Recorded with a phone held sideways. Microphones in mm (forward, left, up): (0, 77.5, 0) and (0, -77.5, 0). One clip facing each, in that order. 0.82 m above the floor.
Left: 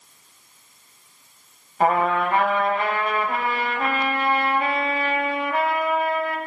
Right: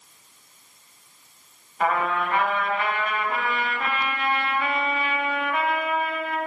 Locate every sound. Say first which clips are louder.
1.8 s a trumpet: left 4 dB; 40° left (ahead or behind), 1.2 m